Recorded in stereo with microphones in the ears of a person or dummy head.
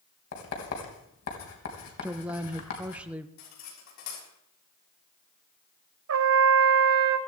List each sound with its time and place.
0.3 s writing: 75° left (ahead or behind), 3.5 m
2.0 s a woman speaking: 10° right (ahead or behind), 1.0 m
3.4 s cutlery clinking: 80° left, 6.5 m
6.1 s a trumpet: 65° right (ahead or behind), 0.9 m